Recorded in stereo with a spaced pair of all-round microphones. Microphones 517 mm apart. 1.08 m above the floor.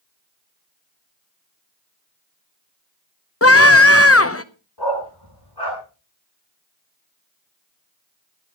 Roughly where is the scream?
Left.